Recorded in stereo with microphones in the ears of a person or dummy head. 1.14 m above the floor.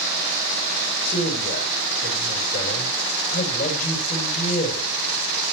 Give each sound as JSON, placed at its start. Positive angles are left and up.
{"t": 1.1, "sound": "a man speaking", "side_deg": 40, "distance_m": 4.5}